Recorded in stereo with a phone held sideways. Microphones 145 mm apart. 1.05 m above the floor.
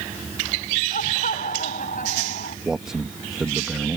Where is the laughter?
70° left (ahead or behind).